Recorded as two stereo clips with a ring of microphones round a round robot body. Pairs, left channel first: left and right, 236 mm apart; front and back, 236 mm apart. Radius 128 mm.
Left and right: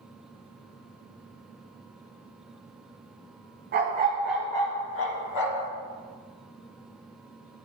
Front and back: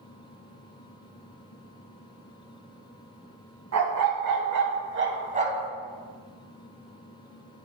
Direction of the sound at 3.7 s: 145° right.